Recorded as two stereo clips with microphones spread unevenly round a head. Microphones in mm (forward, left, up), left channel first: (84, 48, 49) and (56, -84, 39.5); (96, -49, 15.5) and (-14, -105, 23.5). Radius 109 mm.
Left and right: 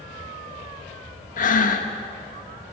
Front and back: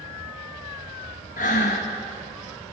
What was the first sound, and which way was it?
Breathing, 70° left.